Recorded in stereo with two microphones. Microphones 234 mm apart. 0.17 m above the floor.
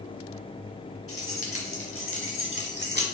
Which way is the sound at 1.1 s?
70° left (ahead or behind).